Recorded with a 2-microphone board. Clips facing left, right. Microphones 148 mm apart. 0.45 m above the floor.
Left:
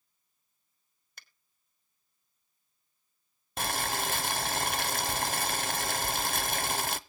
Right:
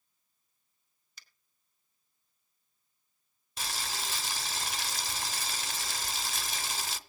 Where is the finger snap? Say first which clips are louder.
Left 4 dB; 55° left (ahead or behind), 1.3 m.